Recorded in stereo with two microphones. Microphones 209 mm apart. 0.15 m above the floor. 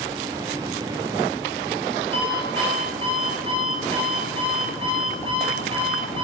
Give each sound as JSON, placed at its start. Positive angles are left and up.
{"t": 2.1, "sound": "an alarm clock", "side_deg": -25, "distance_m": 1.3}